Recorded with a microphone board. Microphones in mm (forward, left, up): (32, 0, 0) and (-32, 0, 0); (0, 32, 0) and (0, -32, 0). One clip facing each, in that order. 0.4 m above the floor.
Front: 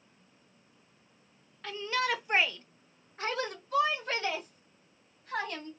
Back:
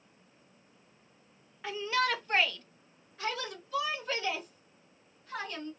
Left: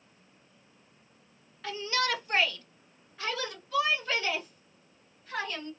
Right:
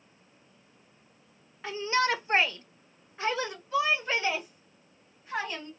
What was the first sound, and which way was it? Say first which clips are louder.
A shout: back 1 dB, right 3 dB; 120° right.